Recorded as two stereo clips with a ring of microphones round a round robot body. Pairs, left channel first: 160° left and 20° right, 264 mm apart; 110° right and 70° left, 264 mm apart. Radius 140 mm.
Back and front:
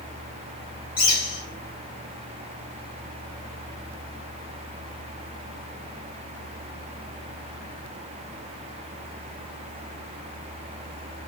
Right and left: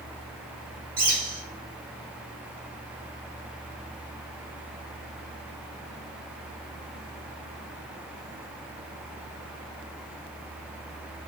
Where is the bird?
115° left, 1.9 m.